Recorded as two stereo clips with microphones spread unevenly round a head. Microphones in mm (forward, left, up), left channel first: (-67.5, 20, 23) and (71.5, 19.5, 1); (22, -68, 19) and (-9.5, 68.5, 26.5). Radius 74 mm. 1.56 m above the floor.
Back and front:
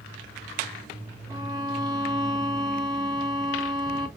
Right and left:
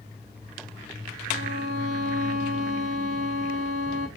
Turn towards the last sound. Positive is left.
turn(degrees=60)